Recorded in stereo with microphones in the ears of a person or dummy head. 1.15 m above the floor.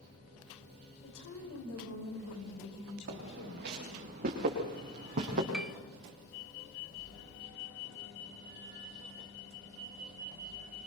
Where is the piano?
5° right (ahead or behind), 0.7 m.